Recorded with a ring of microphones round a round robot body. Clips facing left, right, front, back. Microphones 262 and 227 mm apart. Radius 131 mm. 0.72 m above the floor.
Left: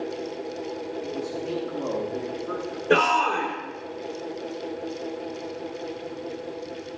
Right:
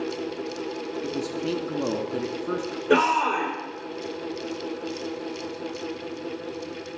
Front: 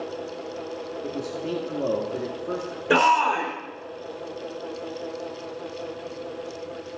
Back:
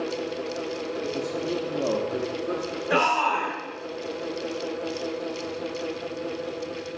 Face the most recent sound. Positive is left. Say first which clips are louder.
# right 1 dB, front 5 dB
turn(degrees=-5)